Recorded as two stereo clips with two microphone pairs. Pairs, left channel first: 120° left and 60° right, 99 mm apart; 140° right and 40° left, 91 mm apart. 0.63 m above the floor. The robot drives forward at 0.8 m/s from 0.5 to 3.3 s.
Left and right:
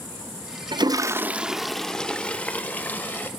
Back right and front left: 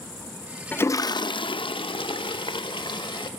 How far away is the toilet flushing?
About 0.5 m.